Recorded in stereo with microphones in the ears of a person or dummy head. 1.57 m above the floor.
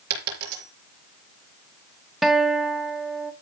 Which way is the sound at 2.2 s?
5° right (ahead or behind).